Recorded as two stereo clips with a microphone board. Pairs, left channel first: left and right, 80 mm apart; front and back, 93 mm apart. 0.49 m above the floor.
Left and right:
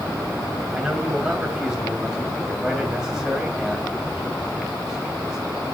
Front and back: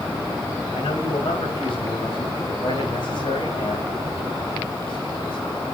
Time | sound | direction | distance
0.7 | a man speaking | 10° right | 2.5 m